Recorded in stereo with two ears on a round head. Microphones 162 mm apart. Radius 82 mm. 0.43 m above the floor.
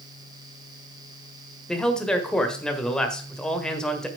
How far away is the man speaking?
About 1.6 m.